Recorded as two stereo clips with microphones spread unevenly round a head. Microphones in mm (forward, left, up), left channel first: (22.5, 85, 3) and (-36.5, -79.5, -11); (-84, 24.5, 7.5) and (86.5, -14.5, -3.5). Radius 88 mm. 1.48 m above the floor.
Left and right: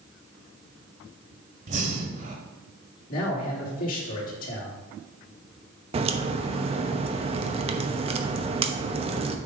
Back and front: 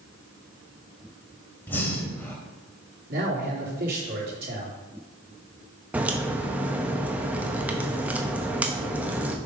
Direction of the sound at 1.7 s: 125° right.